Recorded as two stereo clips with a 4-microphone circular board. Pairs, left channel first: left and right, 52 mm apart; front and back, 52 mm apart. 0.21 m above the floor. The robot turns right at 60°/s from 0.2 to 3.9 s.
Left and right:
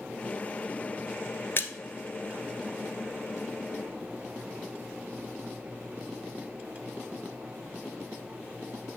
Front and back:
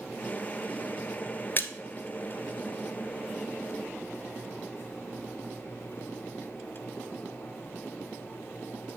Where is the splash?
50° left, 1.0 m; by 1.7 s 60° left, 1.0 m.